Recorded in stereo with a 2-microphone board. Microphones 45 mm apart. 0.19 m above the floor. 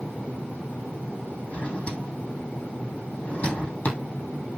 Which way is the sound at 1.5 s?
30° left (ahead or behind).